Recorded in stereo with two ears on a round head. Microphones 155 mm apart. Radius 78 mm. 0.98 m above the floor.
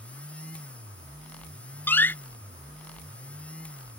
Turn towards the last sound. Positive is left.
turn(degrees=10)  # may be behind; listen again after turning